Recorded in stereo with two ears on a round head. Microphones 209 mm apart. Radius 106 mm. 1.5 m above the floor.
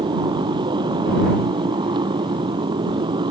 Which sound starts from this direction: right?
A motorcycle, at 0.0 s.